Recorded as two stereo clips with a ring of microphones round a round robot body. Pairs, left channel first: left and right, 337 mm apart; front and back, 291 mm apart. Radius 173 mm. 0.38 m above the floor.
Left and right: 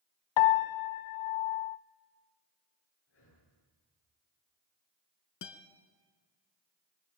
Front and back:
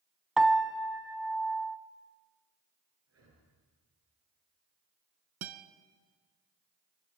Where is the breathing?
145° left, 8.5 m.